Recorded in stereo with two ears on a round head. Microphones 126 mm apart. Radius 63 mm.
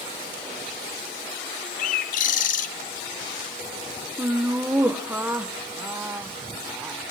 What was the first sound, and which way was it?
A bird, 60° left (ahead or behind).